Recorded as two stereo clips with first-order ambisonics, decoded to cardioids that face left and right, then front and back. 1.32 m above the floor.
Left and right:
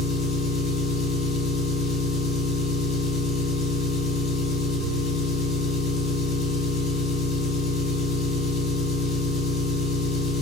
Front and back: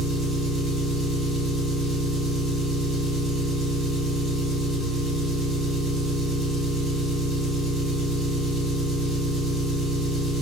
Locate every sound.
0.0 s an engine running: 105° left, 1.3 m